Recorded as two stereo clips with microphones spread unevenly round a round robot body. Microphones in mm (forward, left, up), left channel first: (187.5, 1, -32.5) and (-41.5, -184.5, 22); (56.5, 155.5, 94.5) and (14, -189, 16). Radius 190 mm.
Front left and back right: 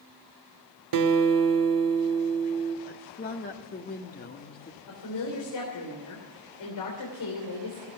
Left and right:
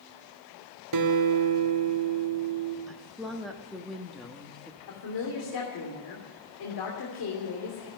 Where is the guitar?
140° right, 1.1 m.